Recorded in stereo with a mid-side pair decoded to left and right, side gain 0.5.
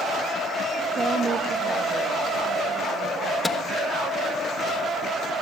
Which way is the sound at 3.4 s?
15° left.